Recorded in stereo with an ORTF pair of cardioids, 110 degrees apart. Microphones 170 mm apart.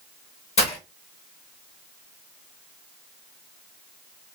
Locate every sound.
0.6 s breaking glass: 40° left, 1.0 m